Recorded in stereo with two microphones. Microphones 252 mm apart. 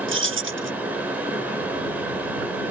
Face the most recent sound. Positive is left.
turn(degrees=-50)  # may be behind; listen again after turning